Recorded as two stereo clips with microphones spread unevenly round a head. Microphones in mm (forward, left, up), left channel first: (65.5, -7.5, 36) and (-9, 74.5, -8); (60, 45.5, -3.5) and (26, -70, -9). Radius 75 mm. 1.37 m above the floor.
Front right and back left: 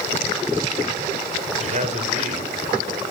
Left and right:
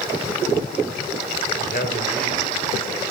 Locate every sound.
1.6 s a man speaking: 110° left, 4.5 m